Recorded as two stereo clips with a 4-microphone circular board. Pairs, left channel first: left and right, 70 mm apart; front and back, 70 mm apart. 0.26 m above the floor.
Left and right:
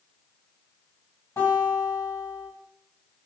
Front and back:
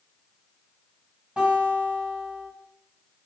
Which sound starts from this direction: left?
A guitar, at 1.4 s.